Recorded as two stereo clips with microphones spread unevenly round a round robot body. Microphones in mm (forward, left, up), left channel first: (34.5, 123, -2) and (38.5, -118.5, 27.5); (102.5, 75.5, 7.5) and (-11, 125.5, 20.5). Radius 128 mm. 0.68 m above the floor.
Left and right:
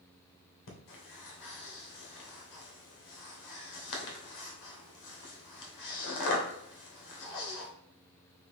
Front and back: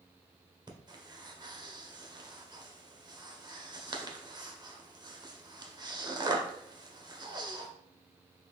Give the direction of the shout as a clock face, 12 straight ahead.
I don't hear a shout.